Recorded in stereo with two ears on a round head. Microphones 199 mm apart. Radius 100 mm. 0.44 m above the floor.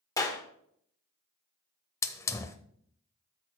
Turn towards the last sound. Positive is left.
turn(degrees=15)  # may be behind; listen again after turning